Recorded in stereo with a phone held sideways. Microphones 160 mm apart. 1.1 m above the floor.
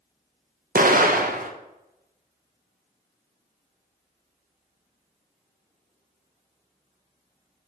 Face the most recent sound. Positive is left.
turn(degrees=-60)  # may be behind; listen again after turning